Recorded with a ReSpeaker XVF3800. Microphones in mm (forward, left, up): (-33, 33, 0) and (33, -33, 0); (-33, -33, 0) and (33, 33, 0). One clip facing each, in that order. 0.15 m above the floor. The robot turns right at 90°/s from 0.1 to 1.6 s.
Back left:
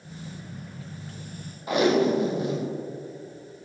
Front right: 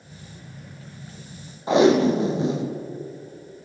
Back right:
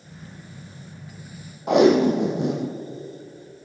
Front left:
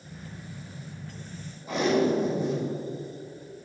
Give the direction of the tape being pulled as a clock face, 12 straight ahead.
4 o'clock.